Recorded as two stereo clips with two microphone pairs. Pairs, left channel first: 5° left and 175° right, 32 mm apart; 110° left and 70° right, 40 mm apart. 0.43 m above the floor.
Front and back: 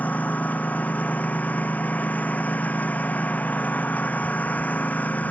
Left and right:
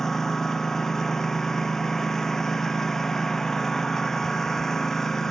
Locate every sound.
0.0 s a lawn mower: 30° left